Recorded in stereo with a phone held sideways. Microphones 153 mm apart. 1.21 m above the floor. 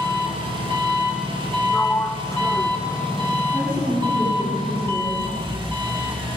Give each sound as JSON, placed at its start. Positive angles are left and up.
{"t": 0.0, "sound": "an engine running", "side_deg": -30, "distance_m": 3.0}
{"t": 1.7, "sound": "a sliding door", "side_deg": 20, "distance_m": 0.6}
{"t": 3.5, "sound": "a woman speaking", "side_deg": -35, "distance_m": 8.5}